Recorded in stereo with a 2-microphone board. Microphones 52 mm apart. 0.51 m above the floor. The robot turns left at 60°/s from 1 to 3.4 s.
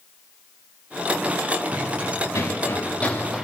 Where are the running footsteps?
75° left (ahead or behind), 5.5 m; by 3.5 s centre (ahead or behind), 3.5 m.